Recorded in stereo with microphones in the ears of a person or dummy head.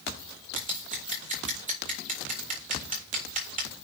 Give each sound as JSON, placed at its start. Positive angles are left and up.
{"t": 0.6, "sound": "scissors", "side_deg": -35, "distance_m": 1.8}